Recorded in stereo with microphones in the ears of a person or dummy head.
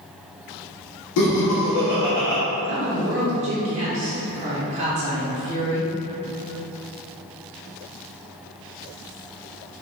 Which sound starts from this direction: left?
Laughter, at 1.2 s.